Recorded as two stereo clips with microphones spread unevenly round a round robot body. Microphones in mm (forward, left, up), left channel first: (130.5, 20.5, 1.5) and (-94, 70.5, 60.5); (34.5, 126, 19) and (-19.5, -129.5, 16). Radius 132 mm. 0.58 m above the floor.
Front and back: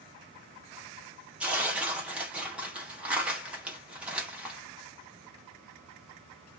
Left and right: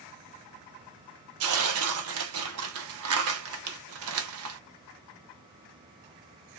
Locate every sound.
1.4 s tearing paper: 95° right, 0.7 m